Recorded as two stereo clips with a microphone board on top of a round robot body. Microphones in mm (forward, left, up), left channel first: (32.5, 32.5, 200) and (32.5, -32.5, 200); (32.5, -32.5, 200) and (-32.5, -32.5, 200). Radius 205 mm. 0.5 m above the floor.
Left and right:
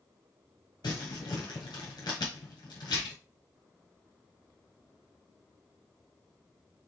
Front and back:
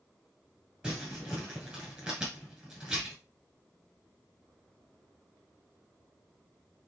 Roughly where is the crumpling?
Left.